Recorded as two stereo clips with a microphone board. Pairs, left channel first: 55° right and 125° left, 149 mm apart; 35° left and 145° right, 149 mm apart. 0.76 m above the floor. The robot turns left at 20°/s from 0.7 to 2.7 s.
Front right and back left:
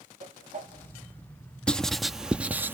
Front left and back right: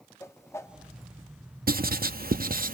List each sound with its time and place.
0.2 s a whoosh: 105° left, 1.7 m; by 0.7 s 100° left, 1.7 m
1.7 s writing: 140° right, 0.6 m; by 2.7 s 160° right, 0.6 m